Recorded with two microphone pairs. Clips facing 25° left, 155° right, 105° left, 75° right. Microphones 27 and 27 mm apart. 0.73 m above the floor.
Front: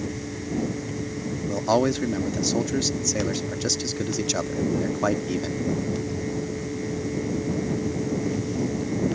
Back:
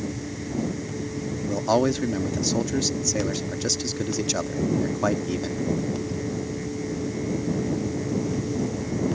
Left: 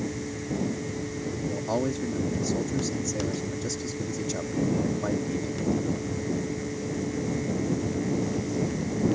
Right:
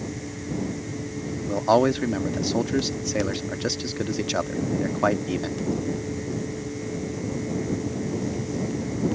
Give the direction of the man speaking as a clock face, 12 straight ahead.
2 o'clock.